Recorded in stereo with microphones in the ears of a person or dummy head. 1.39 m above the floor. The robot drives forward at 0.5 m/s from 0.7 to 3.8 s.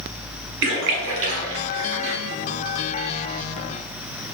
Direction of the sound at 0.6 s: 65° right (ahead or behind).